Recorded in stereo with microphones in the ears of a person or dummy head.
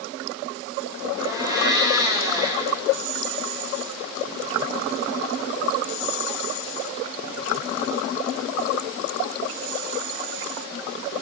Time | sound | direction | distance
1.2 | a blender | 10° right (ahead or behind) | 6 m